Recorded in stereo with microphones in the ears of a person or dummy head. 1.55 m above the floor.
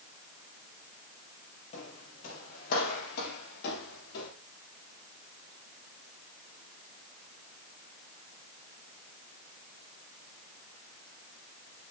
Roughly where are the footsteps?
Left.